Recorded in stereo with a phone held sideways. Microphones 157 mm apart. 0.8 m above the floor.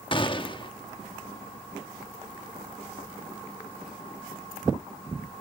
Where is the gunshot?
35° left (ahead or behind), 1.1 m.